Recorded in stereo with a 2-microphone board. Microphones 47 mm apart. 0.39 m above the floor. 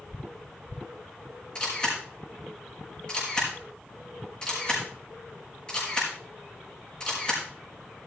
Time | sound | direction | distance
1.6 | a camera shutter | 20° left (ahead or behind) | 5 m